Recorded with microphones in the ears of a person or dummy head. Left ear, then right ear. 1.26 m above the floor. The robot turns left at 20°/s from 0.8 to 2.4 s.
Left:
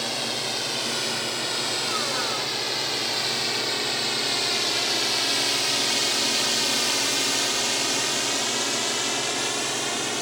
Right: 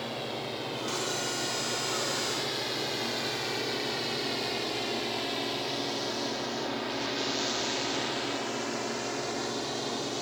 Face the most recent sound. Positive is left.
turn(degrees=65)  # may be behind; listen again after turning